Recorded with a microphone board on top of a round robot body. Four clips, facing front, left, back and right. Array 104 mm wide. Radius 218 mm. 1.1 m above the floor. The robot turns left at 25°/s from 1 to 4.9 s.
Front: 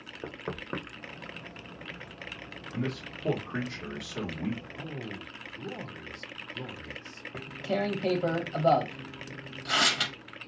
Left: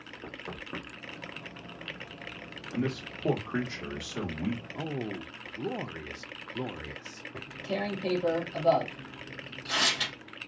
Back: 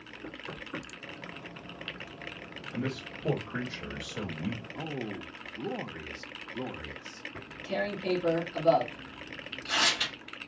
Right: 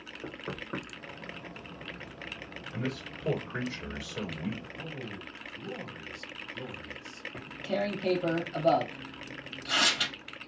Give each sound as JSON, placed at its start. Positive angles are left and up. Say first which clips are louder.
{"t": 0.2, "sound": "knocking", "louder": "right 3 dB, front 5 dB", "azimuth_deg": 0, "distance_m": 0.6}
{"t": 2.7, "sound": "a man speaking", "louder": "left 4 dB, front 1 dB", "azimuth_deg": 90, "distance_m": 1.1}
{"t": 4.8, "sound": "a man speaking", "louder": "left 6 dB, back 3 dB", "azimuth_deg": 110, "distance_m": 0.8}
{"t": 7.3, "sound": "tearing paper", "louder": "right 2 dB, front 3 dB", "azimuth_deg": 0, "distance_m": 1.1}